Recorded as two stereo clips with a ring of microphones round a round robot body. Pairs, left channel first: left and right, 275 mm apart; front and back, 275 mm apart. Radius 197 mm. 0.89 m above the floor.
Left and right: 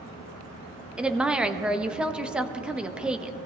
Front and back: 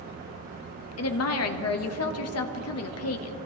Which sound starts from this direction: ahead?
A woman speaking, at 1.0 s.